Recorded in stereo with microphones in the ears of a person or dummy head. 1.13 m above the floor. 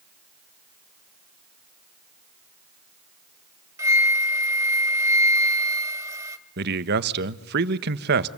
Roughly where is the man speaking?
Right.